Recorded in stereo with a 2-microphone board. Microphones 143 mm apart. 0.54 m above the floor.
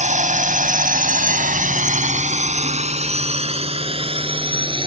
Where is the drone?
60° right (ahead or behind); by 4.9 s 35° right (ahead or behind).